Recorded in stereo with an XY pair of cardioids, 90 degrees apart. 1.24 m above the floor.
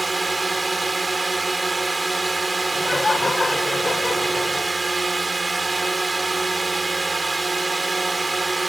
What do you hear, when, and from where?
0.0 s a drone: 25° right
2.7 s laughter: 25° left